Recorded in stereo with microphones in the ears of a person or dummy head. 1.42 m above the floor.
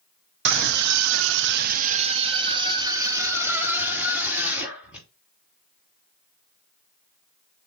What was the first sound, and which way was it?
A scream, 50° right (ahead or behind).